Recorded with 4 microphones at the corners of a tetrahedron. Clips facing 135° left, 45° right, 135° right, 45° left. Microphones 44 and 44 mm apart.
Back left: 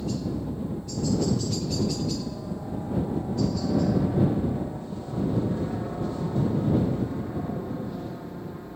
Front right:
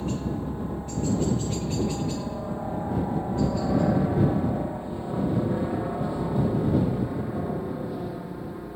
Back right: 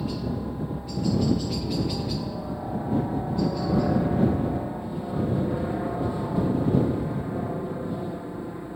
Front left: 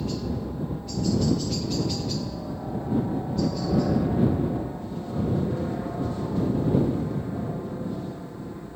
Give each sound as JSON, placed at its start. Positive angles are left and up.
{"t": 0.0, "sound": "a helicopter", "azimuth_deg": -60}